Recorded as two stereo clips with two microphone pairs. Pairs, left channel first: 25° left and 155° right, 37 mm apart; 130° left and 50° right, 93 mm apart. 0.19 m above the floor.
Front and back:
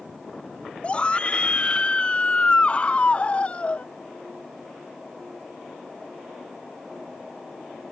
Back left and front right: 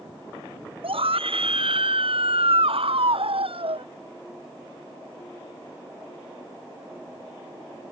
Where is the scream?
40° right; by 3.8 s 35° right.